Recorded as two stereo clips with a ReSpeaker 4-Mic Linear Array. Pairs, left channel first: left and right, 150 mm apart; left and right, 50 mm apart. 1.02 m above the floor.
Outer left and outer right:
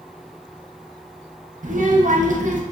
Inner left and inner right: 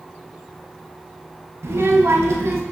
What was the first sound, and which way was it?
A child speaking, 60° right (ahead or behind).